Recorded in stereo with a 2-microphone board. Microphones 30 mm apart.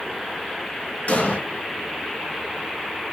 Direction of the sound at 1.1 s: 65° left (ahead or behind).